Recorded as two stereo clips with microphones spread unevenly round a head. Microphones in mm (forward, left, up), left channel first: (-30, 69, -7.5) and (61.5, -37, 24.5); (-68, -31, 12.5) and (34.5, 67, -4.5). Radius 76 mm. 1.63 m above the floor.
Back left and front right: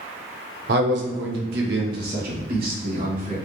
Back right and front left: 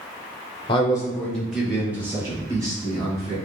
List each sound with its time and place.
0.7 s a man speaking: 75° right, 0.8 m; by 3.4 s 20° right, 2 m